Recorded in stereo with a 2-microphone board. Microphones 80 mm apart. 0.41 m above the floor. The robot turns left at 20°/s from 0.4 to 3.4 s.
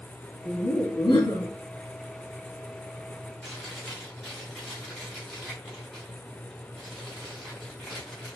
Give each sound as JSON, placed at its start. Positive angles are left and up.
{"t": 0.5, "sound": "laughter", "side_deg": 70, "distance_m": 2.5}
{"t": 3.4, "sound": "chewing", "side_deg": 5, "distance_m": 2.5}